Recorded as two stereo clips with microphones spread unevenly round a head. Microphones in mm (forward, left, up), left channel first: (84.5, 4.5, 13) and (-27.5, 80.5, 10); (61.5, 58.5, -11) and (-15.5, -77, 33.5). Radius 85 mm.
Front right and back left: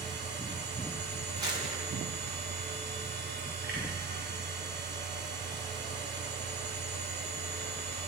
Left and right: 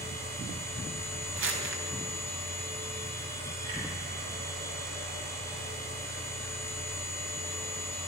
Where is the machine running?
Straight behind, 7.5 m.